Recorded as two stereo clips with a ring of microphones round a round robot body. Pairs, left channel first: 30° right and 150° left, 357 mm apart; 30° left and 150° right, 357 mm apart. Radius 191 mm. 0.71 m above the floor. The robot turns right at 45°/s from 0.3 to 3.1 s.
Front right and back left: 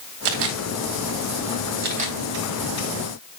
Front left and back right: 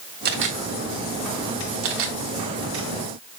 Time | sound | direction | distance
0.2 | a camera shutter | 145° left | 2.0 m